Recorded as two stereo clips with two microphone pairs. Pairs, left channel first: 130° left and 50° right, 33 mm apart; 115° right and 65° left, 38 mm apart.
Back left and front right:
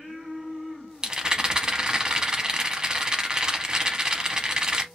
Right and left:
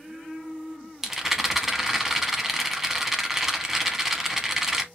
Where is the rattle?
15° right, 0.6 m.